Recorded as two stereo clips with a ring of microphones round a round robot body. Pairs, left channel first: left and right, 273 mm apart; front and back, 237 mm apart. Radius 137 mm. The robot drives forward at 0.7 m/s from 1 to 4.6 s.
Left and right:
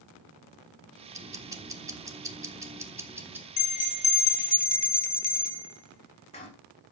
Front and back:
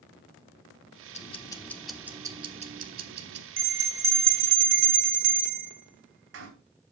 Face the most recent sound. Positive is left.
turn(degrees=160)